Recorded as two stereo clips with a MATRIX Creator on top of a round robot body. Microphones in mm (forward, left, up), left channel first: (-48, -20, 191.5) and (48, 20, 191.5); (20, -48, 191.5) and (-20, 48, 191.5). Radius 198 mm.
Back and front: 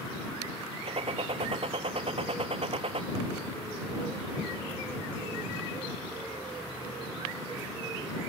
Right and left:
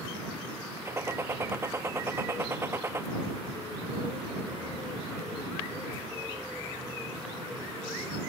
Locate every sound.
0.8 s a gunshot: 50° left